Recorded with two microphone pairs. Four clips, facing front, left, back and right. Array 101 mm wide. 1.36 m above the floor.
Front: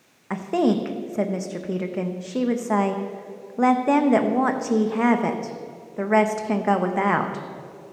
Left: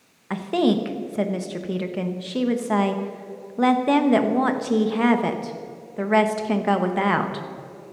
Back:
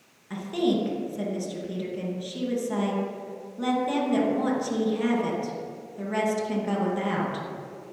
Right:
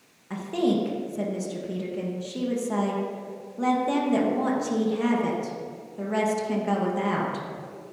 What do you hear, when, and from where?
0.3 s a woman speaking: 40° left, 1.1 m